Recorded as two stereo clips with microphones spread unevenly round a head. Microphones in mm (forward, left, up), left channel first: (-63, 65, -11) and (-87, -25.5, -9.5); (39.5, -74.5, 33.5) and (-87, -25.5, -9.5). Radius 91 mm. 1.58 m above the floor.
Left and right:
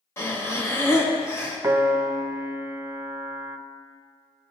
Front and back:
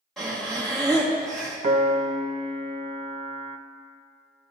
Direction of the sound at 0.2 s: 35° left.